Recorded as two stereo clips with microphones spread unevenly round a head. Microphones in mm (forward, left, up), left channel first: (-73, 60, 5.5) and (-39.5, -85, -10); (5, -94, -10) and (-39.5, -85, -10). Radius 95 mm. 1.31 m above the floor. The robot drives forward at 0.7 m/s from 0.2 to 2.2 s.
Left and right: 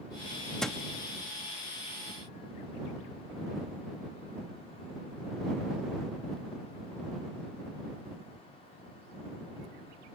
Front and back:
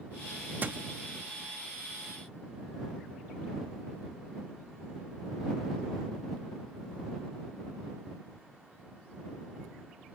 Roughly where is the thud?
Behind.